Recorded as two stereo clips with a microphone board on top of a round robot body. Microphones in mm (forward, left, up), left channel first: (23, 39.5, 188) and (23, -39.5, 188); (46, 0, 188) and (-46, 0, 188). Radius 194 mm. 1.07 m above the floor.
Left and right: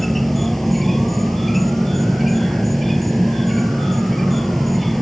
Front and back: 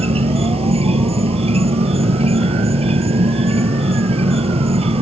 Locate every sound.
0.0 s an insect: straight behind